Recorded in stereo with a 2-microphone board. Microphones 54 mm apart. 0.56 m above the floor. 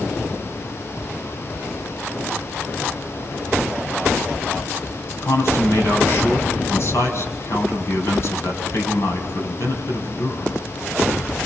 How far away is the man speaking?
About 5.5 m.